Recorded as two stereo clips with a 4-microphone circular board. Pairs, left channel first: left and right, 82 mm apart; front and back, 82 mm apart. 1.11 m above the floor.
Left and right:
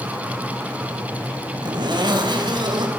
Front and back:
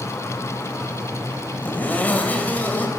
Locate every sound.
1.6 s a zipper: 70° right, 3.5 m